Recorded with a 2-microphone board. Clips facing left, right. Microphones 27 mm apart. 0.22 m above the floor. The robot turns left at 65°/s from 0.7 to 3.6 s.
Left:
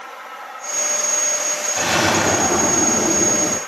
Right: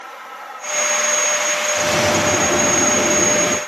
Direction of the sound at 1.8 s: 25° left (ahead or behind).